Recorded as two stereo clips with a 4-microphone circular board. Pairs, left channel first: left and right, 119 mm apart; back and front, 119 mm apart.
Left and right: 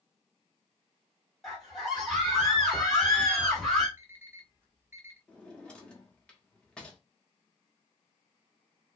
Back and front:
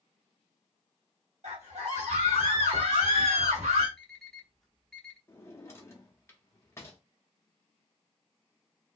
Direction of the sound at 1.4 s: Straight ahead.